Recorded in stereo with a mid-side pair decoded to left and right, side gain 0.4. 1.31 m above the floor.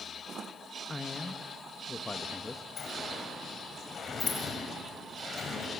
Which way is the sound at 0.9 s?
20° left.